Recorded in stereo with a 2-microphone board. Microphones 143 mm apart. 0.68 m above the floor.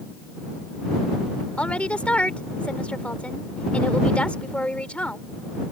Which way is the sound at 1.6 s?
10° left (ahead or behind).